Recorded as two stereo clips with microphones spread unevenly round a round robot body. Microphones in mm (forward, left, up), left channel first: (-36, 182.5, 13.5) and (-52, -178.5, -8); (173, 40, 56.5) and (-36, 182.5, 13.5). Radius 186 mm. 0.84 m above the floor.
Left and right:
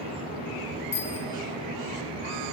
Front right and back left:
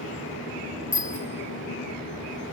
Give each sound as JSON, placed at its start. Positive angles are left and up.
{"t": 0.9, "sound": "a bicycle bell", "azimuth_deg": 15, "distance_m": 2.0}